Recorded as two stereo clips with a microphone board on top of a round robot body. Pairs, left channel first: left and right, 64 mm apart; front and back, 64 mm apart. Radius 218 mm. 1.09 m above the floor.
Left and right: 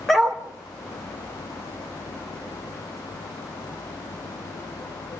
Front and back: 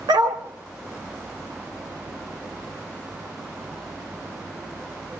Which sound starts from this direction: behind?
A dog barking, at 0.1 s.